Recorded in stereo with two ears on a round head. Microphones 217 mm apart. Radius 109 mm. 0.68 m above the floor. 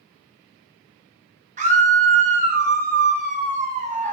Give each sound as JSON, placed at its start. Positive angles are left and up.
{"t": 1.6, "sound": "a scream", "side_deg": -30, "distance_m": 0.5}